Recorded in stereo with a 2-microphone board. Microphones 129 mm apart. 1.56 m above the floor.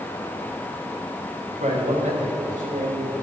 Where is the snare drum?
No snare drum in this recording.